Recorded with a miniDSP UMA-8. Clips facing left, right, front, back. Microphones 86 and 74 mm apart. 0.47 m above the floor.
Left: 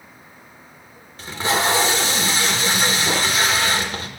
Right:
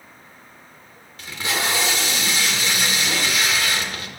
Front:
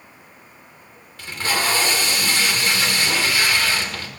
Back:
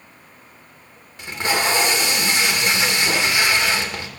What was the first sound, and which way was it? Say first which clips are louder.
Tape being pulled: left 5 dB, back 2 dB; 120° left.